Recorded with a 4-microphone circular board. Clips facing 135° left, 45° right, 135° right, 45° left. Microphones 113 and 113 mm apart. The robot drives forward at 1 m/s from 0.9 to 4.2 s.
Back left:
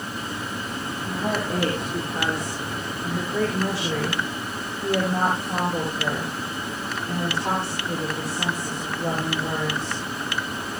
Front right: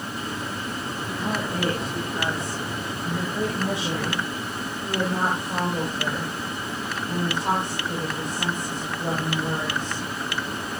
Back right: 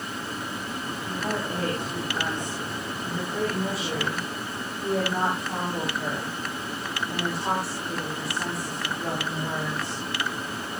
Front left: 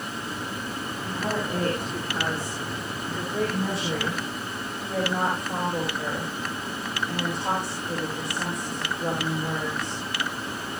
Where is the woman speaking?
120° left, 6.5 m; by 10.0 s 140° left, 8 m.